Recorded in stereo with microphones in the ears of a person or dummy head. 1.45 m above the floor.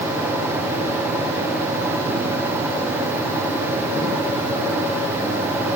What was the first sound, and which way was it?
Only background noise.